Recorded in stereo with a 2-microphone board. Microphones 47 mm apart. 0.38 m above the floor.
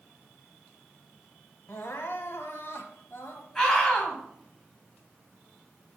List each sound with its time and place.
1.7 s crying: 65° left (ahead or behind), 1.3 m
3.5 s a scream: 15° left (ahead or behind), 3 m